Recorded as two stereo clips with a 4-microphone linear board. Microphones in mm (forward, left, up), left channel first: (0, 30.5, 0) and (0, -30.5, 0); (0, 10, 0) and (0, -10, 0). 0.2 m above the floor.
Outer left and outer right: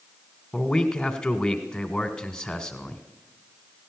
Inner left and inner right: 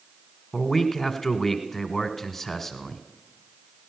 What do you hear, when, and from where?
0.5 s a man speaking: 10° left (ahead or behind), 1.4 m